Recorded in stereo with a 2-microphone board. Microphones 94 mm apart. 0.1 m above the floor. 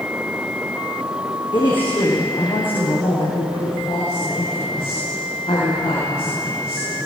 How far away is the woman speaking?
About 6.5 m.